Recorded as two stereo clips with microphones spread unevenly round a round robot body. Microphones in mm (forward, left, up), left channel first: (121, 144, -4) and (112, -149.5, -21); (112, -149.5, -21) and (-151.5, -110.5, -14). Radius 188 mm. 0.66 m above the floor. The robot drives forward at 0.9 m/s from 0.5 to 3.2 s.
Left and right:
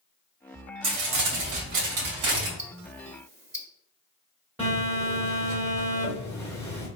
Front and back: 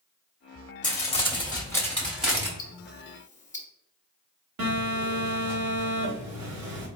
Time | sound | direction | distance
0.8 | crumpling | 70° right | 2.5 m
2.6 | ticking | 35° right | 1.3 m
4.6 | a phone buzzing | 175° right | 1.8 m